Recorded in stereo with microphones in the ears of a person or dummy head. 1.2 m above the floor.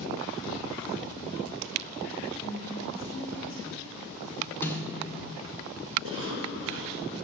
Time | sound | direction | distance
2.4 | a woman speaking | 65° left (ahead or behind) | 4 m
4.6 | a snare drum | 15° left (ahead or behind) | 3.5 m
6.0 | a cough | 75° right (ahead or behind) | 3 m